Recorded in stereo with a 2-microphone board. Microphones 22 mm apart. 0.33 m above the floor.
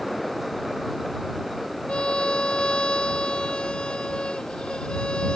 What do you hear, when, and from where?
1.9 s a violin: 60° left (ahead or behind)